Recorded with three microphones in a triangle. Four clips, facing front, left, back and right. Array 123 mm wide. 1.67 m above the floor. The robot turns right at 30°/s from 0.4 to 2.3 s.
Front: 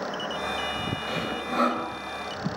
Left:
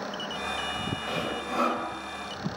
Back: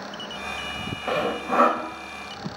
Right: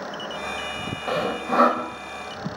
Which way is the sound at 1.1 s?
145° right.